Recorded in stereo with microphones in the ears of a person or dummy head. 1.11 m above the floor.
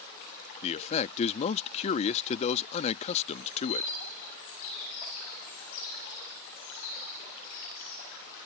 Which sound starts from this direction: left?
A man speaking, at 0.6 s.